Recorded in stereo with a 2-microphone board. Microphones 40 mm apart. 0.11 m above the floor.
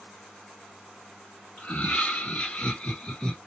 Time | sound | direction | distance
1.6 | laughter | 45° left (ahead or behind) | 2 m